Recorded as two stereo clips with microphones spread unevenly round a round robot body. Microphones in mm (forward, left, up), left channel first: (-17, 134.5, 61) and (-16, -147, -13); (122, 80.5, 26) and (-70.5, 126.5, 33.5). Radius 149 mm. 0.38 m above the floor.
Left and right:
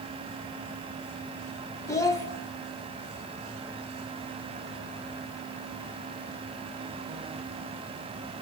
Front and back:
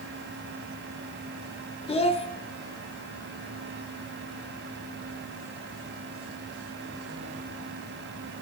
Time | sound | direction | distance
1.9 | a child speaking | 5° right | 0.9 m